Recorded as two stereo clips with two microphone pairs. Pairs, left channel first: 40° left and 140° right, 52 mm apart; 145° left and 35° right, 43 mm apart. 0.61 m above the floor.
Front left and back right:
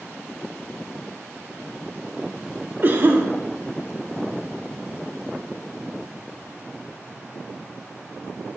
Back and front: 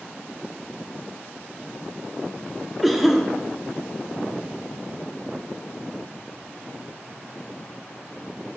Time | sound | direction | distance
2.8 | a cough | 120° right | 0.9 m